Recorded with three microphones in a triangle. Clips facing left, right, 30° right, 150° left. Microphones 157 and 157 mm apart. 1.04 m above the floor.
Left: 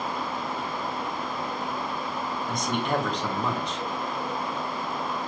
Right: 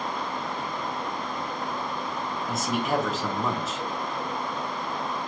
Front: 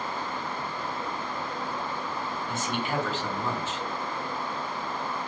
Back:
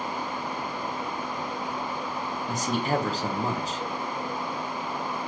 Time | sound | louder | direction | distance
2.5 | a man speaking | right 1 dB, back 5 dB | 175° right | 0.9 m